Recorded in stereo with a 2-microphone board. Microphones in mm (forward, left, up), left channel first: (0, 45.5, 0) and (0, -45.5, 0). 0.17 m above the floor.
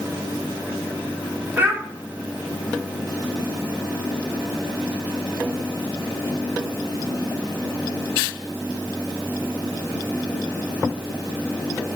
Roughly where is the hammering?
I don't hear hammering.